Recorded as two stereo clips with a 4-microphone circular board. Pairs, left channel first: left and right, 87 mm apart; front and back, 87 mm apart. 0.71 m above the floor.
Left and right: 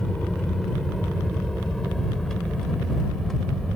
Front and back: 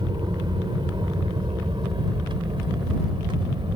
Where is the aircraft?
175° left.